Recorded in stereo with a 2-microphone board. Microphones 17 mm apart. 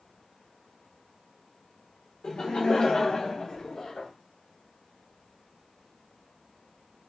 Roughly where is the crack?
I don't hear a crack.